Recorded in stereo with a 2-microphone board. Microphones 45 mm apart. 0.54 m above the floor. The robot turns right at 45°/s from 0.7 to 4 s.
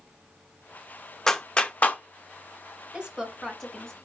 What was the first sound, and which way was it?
A clap, 15° left (ahead or behind).